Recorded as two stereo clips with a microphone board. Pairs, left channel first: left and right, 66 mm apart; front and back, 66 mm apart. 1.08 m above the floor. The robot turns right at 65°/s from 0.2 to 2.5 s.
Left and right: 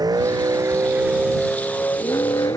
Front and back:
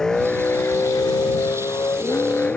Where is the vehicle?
80° right; by 2.6 s 70° left.